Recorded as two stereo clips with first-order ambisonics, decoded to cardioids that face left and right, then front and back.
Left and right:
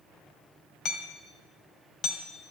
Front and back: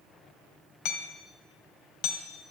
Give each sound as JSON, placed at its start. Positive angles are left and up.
{"t": 0.8, "sound": "hammering", "azimuth_deg": 35, "distance_m": 2.0}